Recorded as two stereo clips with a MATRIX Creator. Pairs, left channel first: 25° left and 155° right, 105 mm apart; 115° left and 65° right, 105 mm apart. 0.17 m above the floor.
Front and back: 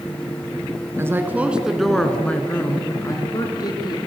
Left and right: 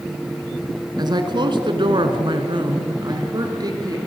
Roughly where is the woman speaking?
Right.